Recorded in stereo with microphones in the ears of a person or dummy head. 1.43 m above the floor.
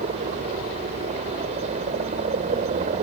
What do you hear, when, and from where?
0.0 s a helicopter: 35° right (ahead or behind)